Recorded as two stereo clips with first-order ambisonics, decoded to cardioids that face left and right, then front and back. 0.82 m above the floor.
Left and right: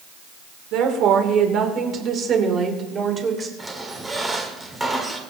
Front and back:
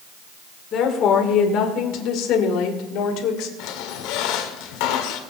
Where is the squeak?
10° right, 1.9 m.